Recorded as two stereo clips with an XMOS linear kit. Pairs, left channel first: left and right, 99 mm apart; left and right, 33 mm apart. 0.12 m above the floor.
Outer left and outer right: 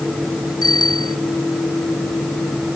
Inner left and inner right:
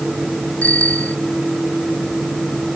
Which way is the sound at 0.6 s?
50° left (ahead or behind).